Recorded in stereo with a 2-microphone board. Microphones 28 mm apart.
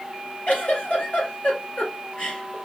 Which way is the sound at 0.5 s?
55° left (ahead or behind).